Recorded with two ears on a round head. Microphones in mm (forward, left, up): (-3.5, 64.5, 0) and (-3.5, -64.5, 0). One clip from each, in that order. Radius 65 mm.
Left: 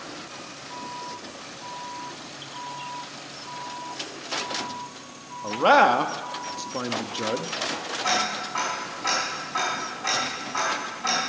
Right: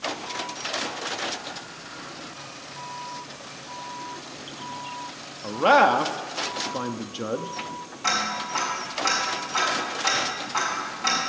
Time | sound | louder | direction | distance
5.4 | a man speaking | even | 5° left (ahead or behind) | 0.7 m
8.0 | ticking | right 1 dB | 25° right (ahead or behind) | 5.5 m